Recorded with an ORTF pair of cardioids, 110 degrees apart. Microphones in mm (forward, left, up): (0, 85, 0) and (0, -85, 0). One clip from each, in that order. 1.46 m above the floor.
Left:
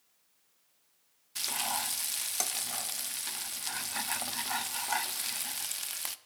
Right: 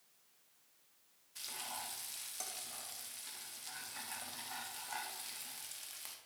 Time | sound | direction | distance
1.4 | frying | 60° left | 0.6 m